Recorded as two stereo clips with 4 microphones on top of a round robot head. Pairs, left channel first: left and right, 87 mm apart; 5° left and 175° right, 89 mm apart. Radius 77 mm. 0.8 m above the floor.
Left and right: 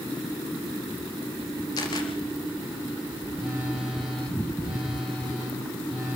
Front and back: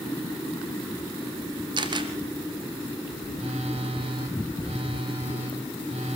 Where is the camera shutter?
150° left, 2.5 m.